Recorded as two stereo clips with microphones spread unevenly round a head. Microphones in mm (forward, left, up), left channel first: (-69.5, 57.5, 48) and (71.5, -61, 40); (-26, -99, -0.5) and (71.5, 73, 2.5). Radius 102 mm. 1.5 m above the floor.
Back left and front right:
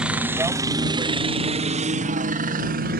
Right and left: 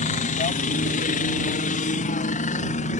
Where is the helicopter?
120° right; by 3.0 s 70° right.